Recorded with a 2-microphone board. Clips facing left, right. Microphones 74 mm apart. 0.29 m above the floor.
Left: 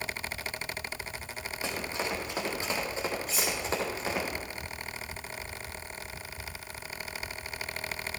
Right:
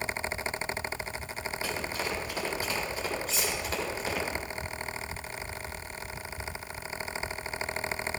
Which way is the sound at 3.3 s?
5° left (ahead or behind).